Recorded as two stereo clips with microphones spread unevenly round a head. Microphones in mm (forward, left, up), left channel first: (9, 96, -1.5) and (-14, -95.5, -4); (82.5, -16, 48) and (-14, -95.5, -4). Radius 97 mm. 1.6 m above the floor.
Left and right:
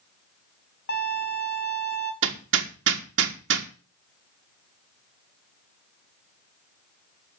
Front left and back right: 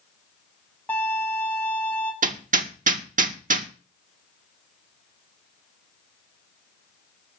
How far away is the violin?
About 2.5 m.